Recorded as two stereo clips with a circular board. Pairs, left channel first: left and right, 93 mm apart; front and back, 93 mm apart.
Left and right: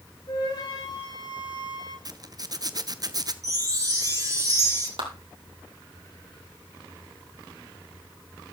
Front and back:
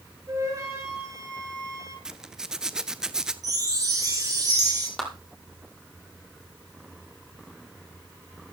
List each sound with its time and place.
0.3 s a flute: 125° left, 6 m
2.0 s a zipper: 100° right, 0.8 m
3.4 s a chime: 135° right, 3 m
5.0 s a clap: 85° right, 4 m